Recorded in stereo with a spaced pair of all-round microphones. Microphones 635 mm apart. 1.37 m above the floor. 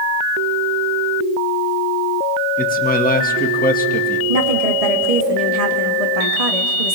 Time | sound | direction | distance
2.6 | a man speaking | 15° left (ahead or behind) | 2 m
4.3 | a woman speaking | 70° right (ahead or behind) | 2 m